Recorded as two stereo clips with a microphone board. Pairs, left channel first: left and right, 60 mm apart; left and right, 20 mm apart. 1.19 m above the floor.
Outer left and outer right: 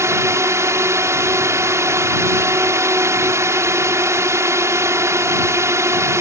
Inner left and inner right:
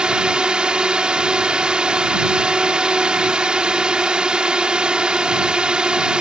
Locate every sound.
0.0 s a drone: 55° right (ahead or behind)